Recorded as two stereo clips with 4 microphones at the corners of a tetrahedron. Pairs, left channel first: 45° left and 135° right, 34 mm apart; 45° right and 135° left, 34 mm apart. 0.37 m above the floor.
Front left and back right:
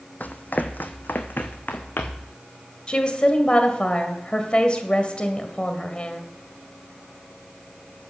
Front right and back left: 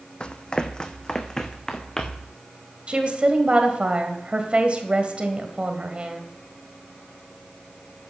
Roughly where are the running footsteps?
Ahead.